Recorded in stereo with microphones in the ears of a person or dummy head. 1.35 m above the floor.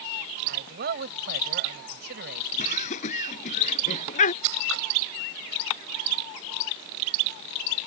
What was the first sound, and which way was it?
A man speaking, 55° right (ahead or behind).